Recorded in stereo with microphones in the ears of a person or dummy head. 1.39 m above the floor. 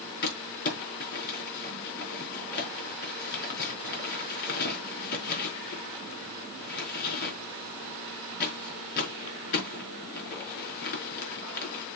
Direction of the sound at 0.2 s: 55° left (ahead or behind).